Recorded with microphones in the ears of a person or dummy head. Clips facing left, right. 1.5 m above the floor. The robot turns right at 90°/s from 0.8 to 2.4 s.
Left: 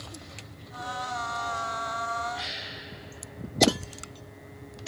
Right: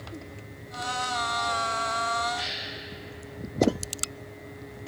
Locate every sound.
2.3 s a gasp: 5° left (ahead or behind), 1.5 m; by 2.7 s centre (ahead or behind), 1.5 m